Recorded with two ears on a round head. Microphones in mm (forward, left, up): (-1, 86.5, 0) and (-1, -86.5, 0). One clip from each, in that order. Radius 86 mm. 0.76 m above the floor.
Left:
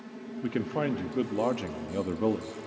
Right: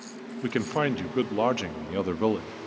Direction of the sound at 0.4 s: 40° right (ahead or behind).